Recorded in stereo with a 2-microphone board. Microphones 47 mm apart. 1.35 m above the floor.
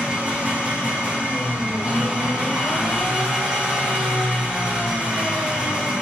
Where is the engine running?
20° right (ahead or behind), 1.3 m.